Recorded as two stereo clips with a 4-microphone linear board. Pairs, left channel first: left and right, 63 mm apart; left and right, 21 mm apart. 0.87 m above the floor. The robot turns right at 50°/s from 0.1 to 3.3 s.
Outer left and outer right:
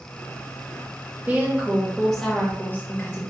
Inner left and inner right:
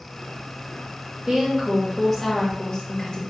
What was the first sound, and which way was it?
A woman speaking, 40° right.